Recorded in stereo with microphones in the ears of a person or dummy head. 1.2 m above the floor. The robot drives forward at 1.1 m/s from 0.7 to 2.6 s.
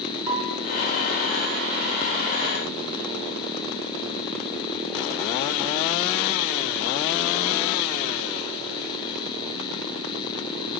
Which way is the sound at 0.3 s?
15° right (ahead or behind).